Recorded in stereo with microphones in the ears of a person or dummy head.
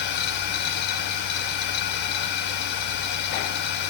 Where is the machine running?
60° left (ahead or behind), 1.7 m.